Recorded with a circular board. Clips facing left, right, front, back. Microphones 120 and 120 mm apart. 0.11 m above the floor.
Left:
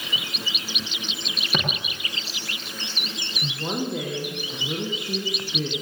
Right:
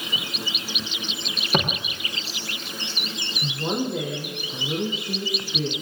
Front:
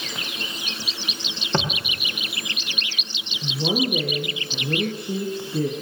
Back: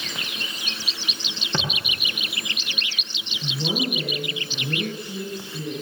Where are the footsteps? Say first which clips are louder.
Right 5 dB, front 5 dB; 40° right, 5.5 m.